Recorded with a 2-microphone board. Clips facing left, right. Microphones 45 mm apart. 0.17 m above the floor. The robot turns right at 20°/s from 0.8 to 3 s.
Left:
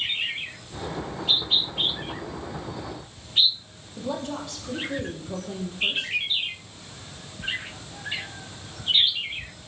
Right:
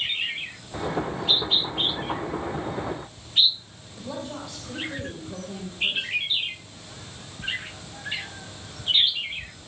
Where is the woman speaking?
65° left (ahead or behind), 4.5 m.